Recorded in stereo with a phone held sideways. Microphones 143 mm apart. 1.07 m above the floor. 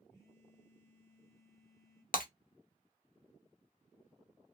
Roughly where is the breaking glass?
Left.